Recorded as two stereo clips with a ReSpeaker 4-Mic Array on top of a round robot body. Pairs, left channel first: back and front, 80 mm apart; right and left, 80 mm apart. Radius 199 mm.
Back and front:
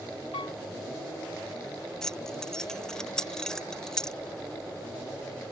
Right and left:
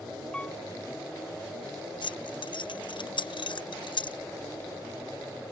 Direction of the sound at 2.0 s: 100° right.